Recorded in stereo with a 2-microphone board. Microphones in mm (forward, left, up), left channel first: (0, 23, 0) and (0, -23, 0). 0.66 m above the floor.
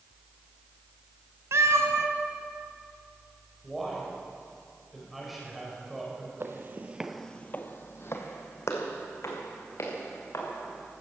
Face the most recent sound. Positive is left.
turn(degrees=80)